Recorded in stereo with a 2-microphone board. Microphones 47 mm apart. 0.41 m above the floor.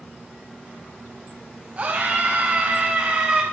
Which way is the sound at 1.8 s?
35° right (ahead or behind).